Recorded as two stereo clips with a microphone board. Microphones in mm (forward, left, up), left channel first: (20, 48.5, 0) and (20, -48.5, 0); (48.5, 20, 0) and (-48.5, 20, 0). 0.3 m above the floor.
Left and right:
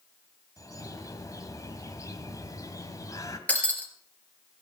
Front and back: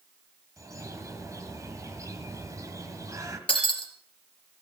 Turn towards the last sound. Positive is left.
turn(degrees=15)